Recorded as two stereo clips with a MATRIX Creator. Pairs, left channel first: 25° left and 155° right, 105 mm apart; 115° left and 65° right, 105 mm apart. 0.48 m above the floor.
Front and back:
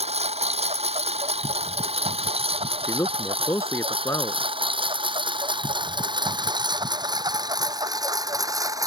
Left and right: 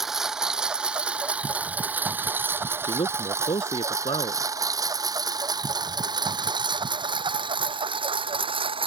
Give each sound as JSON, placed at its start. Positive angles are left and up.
{"t": 0.0, "sound": "a lawn mower", "azimuth_deg": -155}
{"t": 2.8, "sound": "a man speaking", "azimuth_deg": 85}